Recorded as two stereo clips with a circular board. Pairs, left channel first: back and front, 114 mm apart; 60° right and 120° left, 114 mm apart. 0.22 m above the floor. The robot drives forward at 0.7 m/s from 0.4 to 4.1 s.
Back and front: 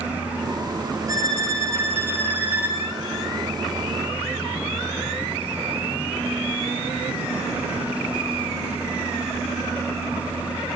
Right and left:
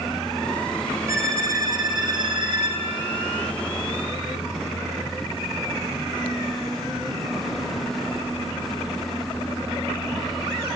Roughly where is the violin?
Ahead left.